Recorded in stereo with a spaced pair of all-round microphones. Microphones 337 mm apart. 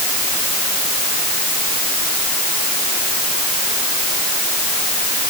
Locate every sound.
Only background noise.